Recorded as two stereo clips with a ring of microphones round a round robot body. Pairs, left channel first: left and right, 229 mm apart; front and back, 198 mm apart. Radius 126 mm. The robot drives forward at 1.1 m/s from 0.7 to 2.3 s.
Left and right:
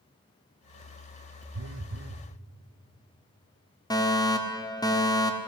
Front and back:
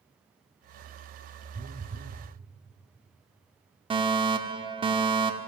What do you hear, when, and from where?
1.5 s a phone buzzing: 115° right, 0.9 m; by 2.3 s 145° right, 1.4 m
3.9 s a fire alarm: 145° left, 1.8 m